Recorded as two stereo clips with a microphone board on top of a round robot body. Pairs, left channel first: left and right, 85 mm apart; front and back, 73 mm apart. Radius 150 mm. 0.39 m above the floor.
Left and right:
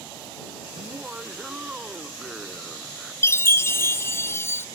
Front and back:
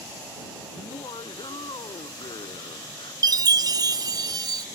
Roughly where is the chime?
Behind left.